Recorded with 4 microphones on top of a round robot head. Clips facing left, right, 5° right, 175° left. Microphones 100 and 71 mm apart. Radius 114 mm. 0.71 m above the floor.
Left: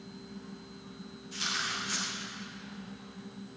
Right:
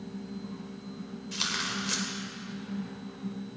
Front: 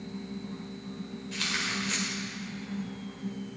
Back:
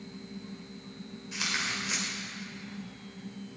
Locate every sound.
1.3 s tearing paper: 105° right, 1.9 m